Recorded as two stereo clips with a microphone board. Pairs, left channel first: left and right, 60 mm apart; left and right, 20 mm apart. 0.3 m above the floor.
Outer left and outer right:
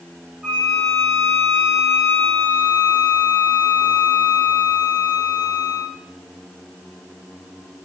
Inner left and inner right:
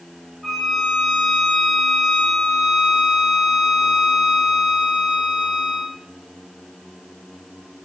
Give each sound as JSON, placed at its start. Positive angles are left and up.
{"t": 0.4, "sound": "a violin", "side_deg": -15, "distance_m": 8.5}